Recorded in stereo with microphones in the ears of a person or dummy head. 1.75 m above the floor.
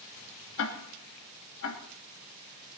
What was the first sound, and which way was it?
Ticking, 70° left (ahead or behind).